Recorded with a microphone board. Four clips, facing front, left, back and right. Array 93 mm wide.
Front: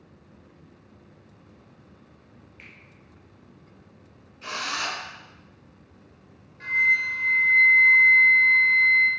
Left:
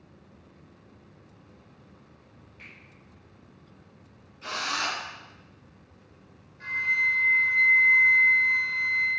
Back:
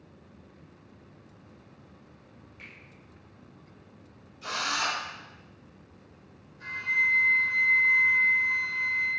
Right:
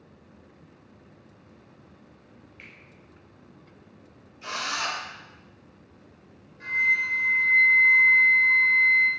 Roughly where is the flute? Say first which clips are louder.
Right 2 dB, front 5 dB; ahead.